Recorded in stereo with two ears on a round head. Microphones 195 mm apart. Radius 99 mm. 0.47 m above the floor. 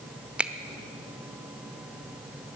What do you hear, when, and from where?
0.4 s a finger snap: 5° right (ahead or behind), 0.7 m